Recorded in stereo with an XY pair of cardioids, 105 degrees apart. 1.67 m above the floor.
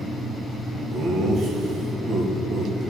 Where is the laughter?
70° right, 3 m.